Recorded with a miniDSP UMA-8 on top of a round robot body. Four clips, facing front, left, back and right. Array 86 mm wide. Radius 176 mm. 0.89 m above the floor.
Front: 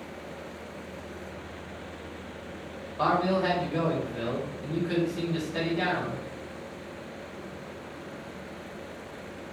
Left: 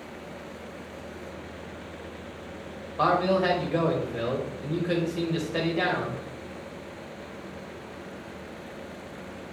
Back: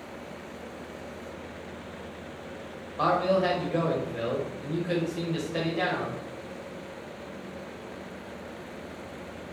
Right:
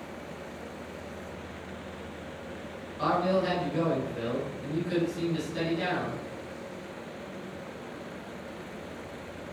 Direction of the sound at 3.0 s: 115° left.